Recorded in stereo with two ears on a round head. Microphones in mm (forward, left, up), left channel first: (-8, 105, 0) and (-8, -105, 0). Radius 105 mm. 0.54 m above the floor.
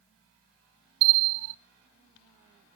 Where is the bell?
75° right (ahead or behind), 0.7 m.